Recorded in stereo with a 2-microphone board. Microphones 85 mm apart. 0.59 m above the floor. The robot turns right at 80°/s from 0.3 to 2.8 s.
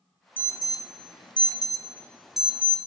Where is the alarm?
20° left (ahead or behind), 0.7 m; by 2.8 s 30° right (ahead or behind), 0.7 m.